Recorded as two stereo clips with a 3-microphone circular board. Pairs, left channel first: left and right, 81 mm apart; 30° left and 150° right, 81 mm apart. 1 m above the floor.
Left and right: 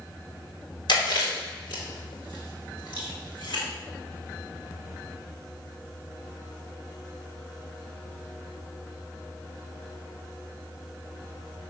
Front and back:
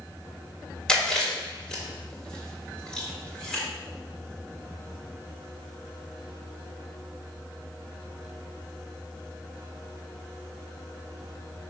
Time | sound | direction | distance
0.9 | chewing | 110° left | 2.5 m